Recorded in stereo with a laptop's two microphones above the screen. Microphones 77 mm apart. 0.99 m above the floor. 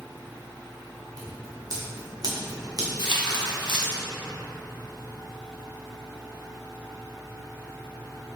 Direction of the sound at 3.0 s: 70° left (ahead or behind).